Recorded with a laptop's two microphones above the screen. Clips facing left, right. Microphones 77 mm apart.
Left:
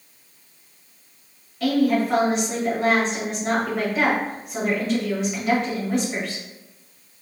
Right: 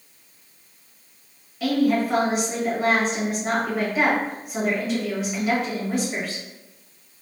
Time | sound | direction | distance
1.6 | a woman speaking | 5° right (ahead or behind) | 1.3 m